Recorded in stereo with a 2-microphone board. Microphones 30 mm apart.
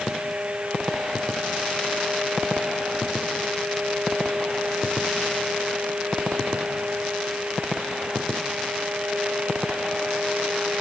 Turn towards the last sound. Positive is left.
No sound to turn to.